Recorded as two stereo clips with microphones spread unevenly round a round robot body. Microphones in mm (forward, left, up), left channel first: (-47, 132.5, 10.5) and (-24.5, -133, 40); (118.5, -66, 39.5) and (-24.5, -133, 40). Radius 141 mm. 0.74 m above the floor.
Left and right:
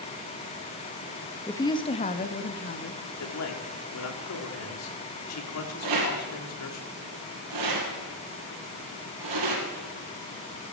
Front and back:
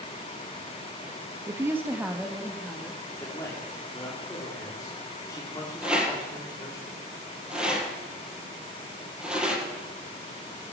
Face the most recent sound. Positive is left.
turn(degrees=-70)